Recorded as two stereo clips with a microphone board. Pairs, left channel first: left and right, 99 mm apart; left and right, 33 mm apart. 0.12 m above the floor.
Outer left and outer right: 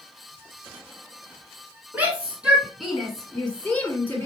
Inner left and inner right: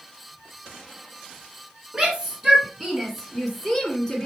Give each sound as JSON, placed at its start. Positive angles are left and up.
{"t": 1.9, "sound": "a shout", "side_deg": -15, "distance_m": 1.8}